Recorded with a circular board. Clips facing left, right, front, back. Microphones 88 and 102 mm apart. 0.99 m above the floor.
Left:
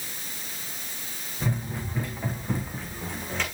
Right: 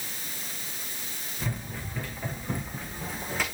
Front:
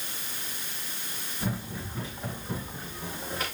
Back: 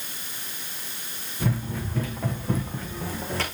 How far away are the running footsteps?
About 5 m.